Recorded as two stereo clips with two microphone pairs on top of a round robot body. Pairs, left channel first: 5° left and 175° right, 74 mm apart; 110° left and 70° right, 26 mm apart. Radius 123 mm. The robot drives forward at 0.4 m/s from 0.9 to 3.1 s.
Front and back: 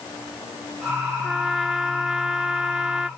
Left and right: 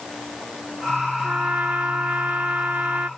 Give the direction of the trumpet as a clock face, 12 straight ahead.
3 o'clock.